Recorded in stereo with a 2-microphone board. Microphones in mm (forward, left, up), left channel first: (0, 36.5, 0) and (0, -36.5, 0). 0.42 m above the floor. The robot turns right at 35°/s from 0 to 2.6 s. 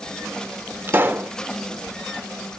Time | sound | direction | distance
0.9 | a pop | 30° right (ahead or behind) | 0.6 m